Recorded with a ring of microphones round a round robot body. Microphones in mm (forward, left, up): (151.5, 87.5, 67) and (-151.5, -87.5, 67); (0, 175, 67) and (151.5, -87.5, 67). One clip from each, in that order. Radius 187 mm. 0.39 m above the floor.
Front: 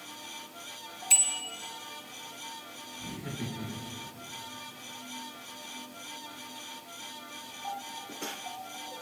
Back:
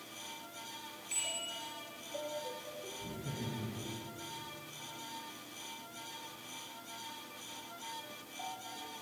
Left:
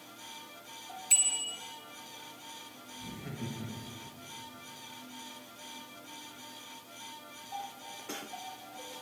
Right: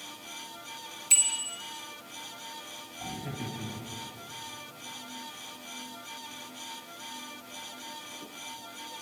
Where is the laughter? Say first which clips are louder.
Front 4 dB, right 5 dB; 30° left, 6.5 m.